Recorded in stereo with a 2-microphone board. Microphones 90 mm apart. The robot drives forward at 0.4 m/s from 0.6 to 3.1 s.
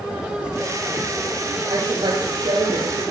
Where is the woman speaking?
75° right (ahead or behind), 5.5 m; by 3.0 s 70° right (ahead or behind), 5.5 m.